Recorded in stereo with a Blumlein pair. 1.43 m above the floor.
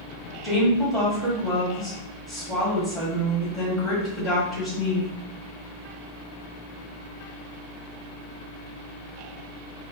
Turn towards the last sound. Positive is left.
turn(degrees=0)